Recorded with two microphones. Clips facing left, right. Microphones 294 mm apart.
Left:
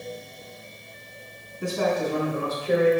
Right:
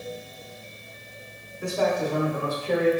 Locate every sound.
1.6 s a man speaking: 35° left (ahead or behind), 1.3 m; by 2.9 s 10° left (ahead or behind), 1.1 m